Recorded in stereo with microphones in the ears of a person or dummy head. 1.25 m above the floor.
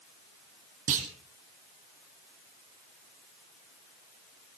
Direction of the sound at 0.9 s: 45° right (ahead or behind).